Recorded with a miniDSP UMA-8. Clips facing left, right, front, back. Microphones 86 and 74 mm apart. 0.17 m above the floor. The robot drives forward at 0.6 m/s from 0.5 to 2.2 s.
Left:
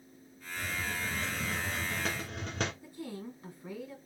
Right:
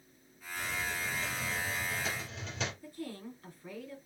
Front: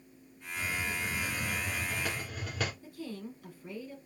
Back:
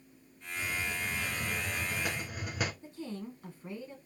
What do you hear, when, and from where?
0.6 s a hiss: 55° left, 1.3 m; by 2.7 s 110° left, 1.1 m
2.8 s a woman speaking: 150° left, 1.3 m